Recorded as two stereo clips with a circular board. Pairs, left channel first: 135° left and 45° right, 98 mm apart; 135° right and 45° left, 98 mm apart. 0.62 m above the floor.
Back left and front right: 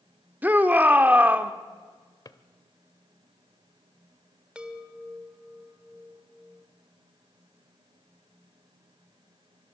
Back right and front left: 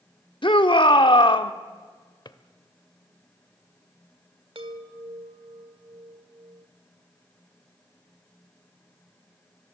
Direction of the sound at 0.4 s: 115° right.